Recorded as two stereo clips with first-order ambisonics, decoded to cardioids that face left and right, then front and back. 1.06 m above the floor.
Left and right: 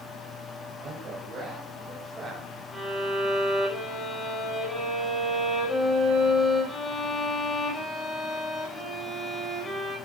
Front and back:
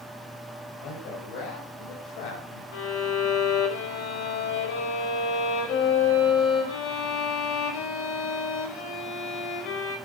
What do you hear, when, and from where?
0.8 s a man speaking: 25° right, 5.5 m; by 2.6 s 10° right, 5.5 m
2.7 s a violin: 10° left, 5.5 m